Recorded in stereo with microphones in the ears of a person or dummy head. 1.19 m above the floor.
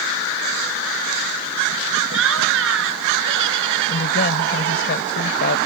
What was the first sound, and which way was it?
Laughter, 75° right (ahead or behind).